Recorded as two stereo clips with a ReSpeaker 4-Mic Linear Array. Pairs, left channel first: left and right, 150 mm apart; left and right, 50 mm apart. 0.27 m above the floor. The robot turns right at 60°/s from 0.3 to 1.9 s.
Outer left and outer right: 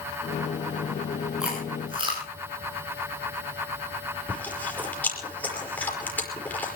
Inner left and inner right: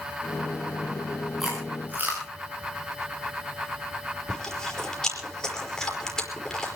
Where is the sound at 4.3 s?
10° left (ahead or behind), 5 m.